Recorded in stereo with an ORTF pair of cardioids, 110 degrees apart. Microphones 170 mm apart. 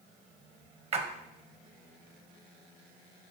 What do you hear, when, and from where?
0.9 s a splash: 40° right, 1.3 m